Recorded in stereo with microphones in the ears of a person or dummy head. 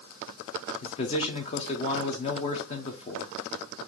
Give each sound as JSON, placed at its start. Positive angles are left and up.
{"t": 0.8, "sound": "a man speaking", "side_deg": 35, "distance_m": 0.7}